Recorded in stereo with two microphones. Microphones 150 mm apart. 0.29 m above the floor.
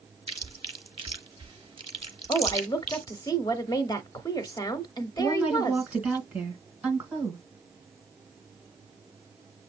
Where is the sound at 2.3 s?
25° left (ahead or behind), 1.0 m.